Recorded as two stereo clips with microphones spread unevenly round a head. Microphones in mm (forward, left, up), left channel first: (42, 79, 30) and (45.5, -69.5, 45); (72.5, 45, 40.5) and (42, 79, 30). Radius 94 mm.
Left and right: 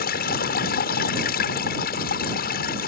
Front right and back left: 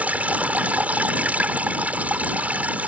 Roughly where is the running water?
Left.